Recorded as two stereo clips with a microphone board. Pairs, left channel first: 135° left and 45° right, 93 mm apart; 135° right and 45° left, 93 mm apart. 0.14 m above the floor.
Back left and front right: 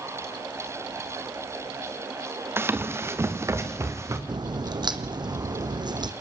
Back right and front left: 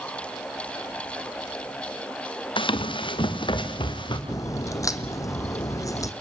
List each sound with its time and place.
2.6 s running footsteps: 110° right, 1.8 m; by 4.2 s 105° right, 3 m
4.3 s a crack: 85° right, 1.4 m